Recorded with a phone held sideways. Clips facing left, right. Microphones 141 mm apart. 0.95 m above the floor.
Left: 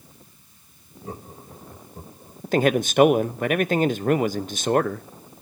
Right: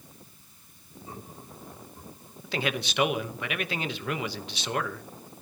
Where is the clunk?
I don't hear a clunk.